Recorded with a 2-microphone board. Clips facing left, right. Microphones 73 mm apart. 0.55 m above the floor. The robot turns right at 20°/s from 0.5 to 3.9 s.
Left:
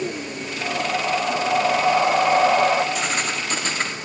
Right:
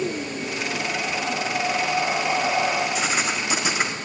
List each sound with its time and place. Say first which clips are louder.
0.6 s breathing: left 6 dB; 80° left, 0.5 m; by 2.9 s 125° left, 0.5 m
3.0 s writing: even; centre (ahead or behind), 0.5 m; by 3.9 s 10° right (ahead or behind), 0.5 m